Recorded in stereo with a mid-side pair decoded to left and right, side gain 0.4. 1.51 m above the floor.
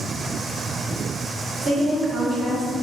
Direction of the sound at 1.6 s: 45° right.